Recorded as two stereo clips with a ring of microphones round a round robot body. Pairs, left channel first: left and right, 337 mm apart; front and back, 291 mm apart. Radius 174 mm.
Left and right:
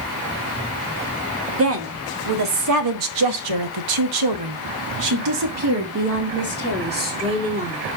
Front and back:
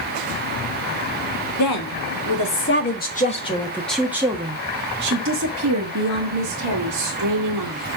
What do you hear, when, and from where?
1.6 s a woman speaking: 40° right, 1.6 m; by 7.8 s 160° right, 2 m